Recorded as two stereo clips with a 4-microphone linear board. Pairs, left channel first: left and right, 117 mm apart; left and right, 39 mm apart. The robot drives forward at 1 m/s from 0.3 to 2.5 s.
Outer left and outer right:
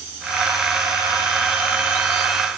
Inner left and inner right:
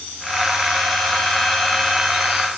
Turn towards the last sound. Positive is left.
No sound to turn to.